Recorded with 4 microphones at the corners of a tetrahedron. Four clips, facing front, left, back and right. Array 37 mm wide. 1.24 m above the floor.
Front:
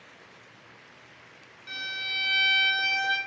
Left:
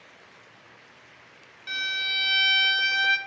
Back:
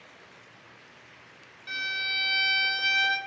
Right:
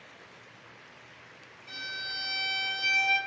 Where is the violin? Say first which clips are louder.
Left 9 dB, back 2 dB; 100° left, 0.7 m.